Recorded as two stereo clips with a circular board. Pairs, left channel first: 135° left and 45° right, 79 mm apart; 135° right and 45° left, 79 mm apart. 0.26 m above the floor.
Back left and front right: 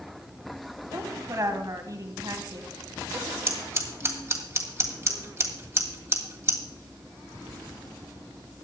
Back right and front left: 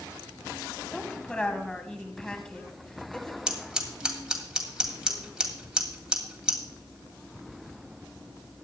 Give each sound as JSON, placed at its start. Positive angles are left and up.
{"t": 0.9, "sound": "a woman speaking", "azimuth_deg": -60, "distance_m": 1.6}
{"t": 3.5, "sound": "scissors", "azimuth_deg": -25, "distance_m": 1.8}